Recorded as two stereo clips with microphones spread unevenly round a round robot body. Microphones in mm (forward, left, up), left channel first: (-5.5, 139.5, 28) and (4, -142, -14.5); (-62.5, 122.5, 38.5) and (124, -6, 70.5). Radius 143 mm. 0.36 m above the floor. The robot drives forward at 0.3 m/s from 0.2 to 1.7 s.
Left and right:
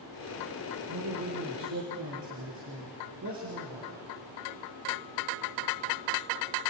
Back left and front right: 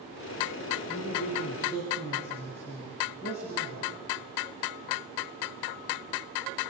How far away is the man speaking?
About 4.5 m.